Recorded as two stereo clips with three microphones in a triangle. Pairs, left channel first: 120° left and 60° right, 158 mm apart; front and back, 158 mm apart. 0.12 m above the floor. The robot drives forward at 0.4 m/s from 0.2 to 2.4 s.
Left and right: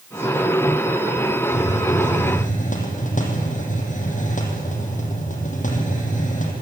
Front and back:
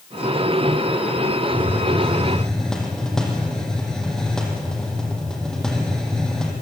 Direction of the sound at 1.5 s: 80° left.